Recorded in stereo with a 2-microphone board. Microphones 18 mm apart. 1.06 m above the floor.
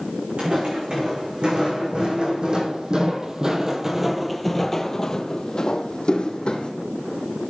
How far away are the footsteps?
About 3.5 m.